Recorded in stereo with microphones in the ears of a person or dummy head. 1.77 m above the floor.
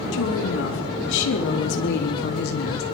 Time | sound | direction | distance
0.1 | a woman speaking | 75° left (ahead or behind) | 5.5 m